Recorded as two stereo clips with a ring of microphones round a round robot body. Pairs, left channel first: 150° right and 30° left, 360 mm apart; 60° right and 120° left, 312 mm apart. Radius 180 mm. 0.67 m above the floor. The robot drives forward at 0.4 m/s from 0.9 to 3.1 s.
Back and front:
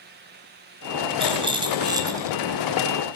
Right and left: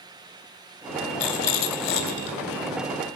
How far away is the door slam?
No door slam in this recording.